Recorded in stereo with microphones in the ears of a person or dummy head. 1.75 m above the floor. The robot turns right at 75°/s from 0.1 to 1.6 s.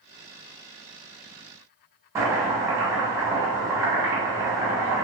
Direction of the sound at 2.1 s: 20° right (ahead or behind).